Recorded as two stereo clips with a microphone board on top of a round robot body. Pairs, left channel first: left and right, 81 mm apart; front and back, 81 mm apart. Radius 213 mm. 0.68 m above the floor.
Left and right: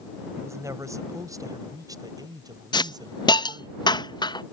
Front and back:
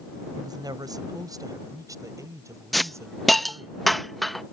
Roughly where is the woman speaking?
Behind right.